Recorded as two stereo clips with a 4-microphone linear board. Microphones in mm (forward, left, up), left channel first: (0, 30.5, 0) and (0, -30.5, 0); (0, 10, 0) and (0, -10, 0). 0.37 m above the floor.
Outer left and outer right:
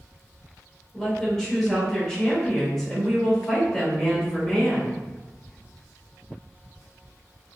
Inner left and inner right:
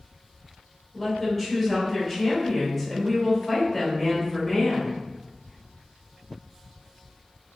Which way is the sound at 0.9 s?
10° left (ahead or behind).